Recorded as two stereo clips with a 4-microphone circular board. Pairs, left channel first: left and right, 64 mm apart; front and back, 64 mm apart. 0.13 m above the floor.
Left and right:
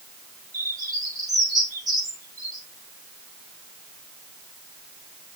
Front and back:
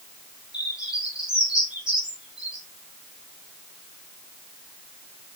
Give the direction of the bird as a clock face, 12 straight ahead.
3 o'clock.